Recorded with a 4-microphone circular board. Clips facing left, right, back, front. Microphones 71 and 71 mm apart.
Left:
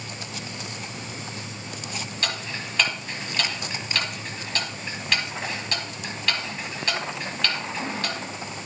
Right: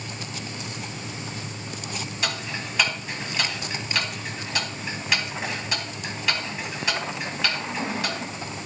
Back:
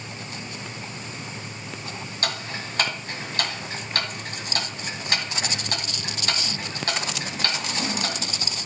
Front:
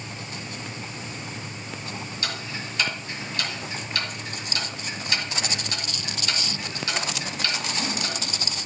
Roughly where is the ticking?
Behind.